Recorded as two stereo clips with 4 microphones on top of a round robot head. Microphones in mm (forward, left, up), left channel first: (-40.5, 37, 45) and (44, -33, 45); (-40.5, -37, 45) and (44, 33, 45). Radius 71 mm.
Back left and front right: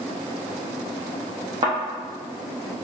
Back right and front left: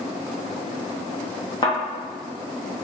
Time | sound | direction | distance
1.6 | a thud | 90° right | 0.8 m